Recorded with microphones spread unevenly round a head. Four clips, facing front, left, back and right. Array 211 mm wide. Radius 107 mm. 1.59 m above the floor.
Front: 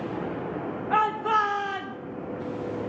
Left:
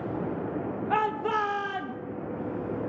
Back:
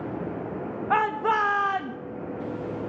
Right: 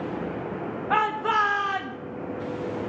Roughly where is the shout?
Behind.